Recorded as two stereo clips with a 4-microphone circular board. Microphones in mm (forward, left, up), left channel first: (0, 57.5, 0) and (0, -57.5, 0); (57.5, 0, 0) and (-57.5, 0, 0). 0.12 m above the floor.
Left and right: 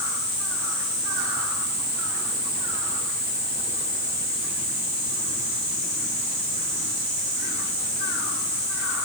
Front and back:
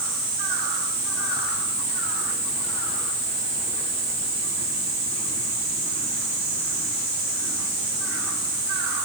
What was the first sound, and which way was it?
Only background noise.